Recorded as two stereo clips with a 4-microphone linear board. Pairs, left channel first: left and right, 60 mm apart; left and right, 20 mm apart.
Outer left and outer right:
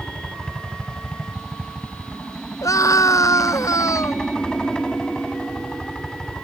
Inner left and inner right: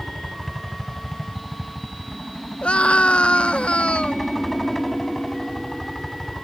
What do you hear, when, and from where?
0.0 s a helicopter: 15° left (ahead or behind)
2.6 s a scream: 65° left (ahead or behind)